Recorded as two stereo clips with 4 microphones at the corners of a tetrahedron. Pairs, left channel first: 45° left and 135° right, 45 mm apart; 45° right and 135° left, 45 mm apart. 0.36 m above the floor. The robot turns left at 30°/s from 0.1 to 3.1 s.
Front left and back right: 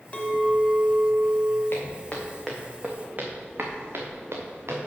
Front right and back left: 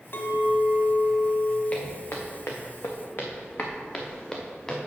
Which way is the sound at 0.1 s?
10° right.